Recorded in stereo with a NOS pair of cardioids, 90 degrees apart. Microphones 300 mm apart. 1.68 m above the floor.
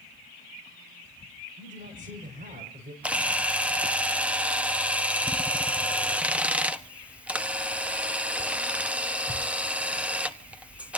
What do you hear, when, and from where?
1.6 s a man speaking: 25° right, 6 m
3.0 s a camera shutter: 5° right, 1.4 m